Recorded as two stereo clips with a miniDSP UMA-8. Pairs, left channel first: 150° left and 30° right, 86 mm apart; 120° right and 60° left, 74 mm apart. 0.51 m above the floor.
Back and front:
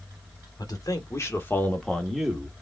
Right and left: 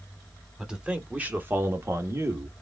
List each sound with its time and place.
0.6 s a man speaking: 135° left, 1.4 m; by 2.5 s 45° left, 1.2 m